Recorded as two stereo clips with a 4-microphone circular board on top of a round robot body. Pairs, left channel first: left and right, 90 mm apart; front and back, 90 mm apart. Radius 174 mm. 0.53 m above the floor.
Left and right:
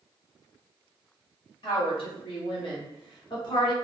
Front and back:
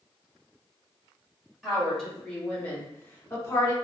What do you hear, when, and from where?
1.6 s a woman speaking: 90° left, 1.9 m; by 3.7 s 55° left, 1.4 m